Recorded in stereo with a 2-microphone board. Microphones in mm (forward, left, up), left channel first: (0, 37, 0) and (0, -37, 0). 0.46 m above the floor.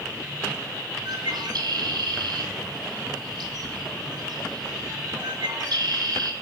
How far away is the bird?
About 2 m.